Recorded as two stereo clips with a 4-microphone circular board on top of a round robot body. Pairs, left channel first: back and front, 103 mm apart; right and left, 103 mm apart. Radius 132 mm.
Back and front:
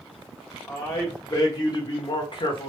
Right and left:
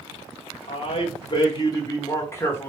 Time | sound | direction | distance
0.7 | a man speaking | 115° right | 2 m